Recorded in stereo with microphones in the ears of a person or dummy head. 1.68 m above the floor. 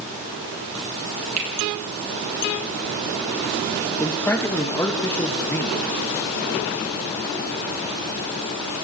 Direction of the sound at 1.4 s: 40° right (ahead or behind).